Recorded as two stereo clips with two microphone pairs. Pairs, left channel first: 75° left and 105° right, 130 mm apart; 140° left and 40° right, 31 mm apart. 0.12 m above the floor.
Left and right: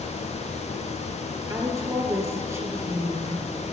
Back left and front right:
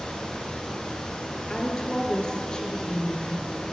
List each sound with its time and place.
1.5 s a woman speaking: 165° right, 2.5 m